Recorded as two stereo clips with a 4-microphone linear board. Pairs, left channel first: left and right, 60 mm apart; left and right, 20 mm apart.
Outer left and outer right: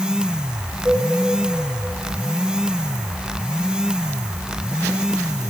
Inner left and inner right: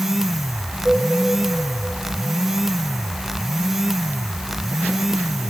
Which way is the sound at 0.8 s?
35° right (ahead or behind).